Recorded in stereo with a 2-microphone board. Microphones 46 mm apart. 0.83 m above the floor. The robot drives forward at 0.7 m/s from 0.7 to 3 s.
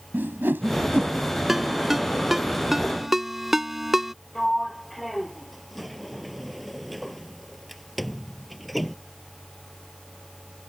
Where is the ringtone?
5° right (ahead or behind).